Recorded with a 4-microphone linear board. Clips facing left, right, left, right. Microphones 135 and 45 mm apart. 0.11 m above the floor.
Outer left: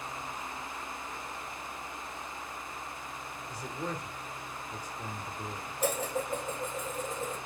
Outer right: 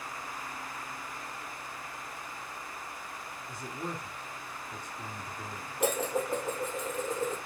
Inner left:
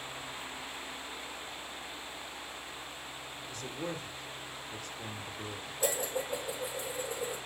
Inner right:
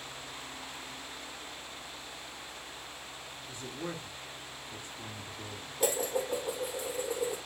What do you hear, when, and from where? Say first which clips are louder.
3.5 s a man speaking: outer left 1 dB, inner left 1 dB; 25° right (ahead or behind), 1.5 m
5.8 s dishes clattering: outer right 2 dB, inner right 3 dB; 70° right (ahead or behind), 2 m